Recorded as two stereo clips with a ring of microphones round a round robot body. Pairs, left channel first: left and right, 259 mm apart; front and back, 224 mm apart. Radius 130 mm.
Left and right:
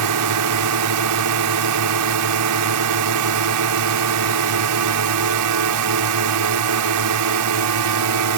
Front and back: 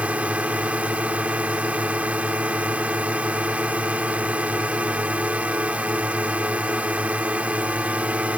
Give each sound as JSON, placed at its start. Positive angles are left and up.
{"t": 0.0, "sound": "a drone", "azimuth_deg": -95}